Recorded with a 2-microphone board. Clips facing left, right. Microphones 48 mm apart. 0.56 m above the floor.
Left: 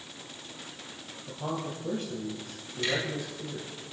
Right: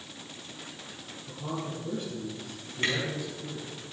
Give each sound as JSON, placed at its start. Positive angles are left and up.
{"t": 1.3, "sound": "a man speaking", "side_deg": 55, "distance_m": 4.0}
{"t": 2.8, "sound": "a camera shutter", "side_deg": -45, "distance_m": 6.0}